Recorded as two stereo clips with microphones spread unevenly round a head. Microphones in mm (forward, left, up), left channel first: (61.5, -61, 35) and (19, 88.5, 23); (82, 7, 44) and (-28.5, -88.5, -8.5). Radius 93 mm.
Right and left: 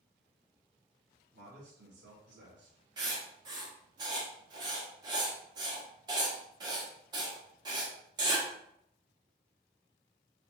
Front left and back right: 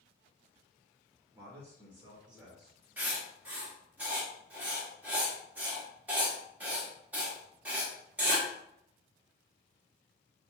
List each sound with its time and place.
1.3 s a man speaking: 145° left, 1.1 m; by 2.9 s 130° left, 1.9 m
3.0 s writing: 95° left, 1.0 m